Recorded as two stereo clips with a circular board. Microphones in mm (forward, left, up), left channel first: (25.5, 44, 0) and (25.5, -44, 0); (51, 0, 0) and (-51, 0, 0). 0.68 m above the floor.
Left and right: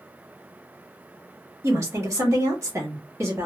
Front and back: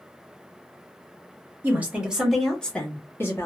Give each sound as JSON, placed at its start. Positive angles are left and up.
{"t": 1.6, "sound": "a woman speaking", "azimuth_deg": -120, "distance_m": 1.2}